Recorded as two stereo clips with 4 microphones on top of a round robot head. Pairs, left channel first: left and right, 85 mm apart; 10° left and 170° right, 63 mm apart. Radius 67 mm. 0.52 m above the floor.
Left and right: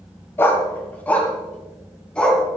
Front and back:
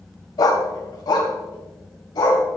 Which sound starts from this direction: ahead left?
A dog barking, at 0.4 s.